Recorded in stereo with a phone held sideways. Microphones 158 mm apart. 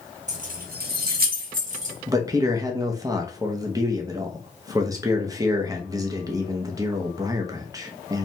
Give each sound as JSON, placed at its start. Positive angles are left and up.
{"t": 0.3, "sound": "keys jangling", "side_deg": -50, "distance_m": 0.7}
{"t": 2.1, "sound": "a man speaking", "side_deg": -20, "distance_m": 0.5}